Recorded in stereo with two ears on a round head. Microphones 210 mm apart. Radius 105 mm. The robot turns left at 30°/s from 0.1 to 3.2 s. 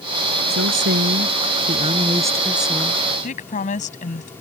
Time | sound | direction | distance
0.5 | a woman speaking | 115° right | ?
3.2 | a woman speaking | 35° left (ahead or behind) | ?